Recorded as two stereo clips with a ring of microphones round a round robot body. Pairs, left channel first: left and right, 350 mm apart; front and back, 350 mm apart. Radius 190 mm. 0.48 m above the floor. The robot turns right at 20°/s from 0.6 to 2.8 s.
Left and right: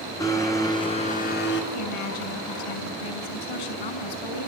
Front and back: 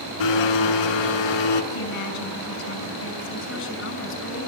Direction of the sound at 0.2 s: 10° left.